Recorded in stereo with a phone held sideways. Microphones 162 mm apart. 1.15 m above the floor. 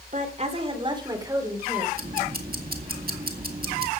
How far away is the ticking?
About 1.9 m.